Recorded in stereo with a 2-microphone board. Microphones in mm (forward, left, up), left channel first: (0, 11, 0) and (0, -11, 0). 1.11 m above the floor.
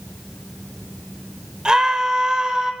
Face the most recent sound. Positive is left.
turn(degrees=-35)  # may be behind; listen again after turning